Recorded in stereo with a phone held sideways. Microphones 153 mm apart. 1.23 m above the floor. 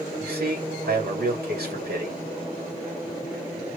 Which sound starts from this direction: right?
A man speaking, at 0.2 s.